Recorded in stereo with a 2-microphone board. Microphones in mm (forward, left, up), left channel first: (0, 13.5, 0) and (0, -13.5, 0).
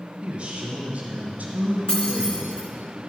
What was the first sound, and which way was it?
A man speaking, 30° right (ahead or behind).